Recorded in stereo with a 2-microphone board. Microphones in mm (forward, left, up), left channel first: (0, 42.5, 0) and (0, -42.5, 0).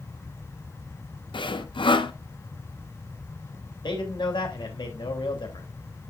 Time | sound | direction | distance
1.3 | sawing | 75° left (ahead or behind) | 0.8 m
3.8 | a man speaking | 70° left (ahead or behind) | 2.5 m